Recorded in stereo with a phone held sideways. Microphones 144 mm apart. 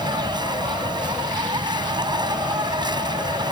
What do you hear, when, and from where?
0.0 s an insect: 30° right (ahead or behind)